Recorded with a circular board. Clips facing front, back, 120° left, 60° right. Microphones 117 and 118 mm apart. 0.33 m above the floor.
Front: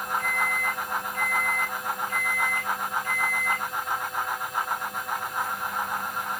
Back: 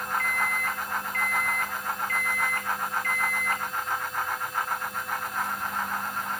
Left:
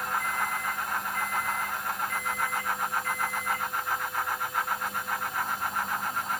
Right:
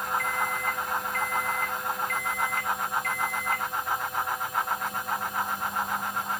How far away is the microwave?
About 2.5 m.